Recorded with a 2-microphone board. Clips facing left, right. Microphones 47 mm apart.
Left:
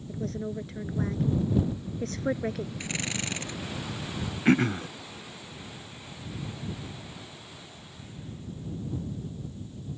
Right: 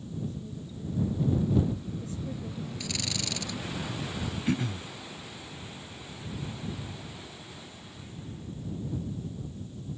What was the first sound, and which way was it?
A woman speaking, 75° left (ahead or behind).